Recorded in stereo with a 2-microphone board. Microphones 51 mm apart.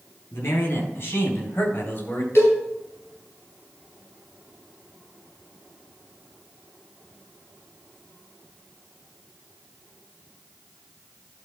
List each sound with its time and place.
0.3 s a man speaking: 50° left (ahead or behind), 5 m; by 2.2 s 30° left (ahead or behind), 2.5 m
2.4 s a cowbell: 50° left (ahead or behind), 4 m